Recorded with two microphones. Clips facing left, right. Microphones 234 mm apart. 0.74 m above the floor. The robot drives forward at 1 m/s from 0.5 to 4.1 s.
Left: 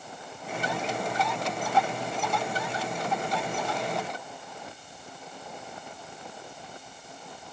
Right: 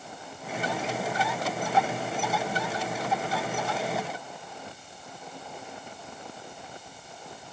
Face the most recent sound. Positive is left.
No sound to turn to.